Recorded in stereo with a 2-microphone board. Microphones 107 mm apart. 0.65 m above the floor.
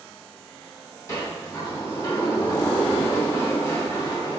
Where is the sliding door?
30° left (ahead or behind), 1.3 m.